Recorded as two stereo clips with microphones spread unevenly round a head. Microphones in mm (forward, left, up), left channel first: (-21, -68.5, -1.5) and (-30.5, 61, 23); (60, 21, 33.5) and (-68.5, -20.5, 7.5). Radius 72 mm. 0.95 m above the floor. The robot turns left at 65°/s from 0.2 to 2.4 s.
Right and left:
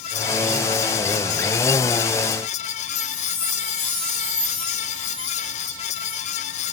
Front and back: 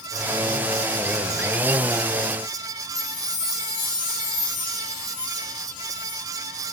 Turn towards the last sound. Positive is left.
turn(degrees=-40)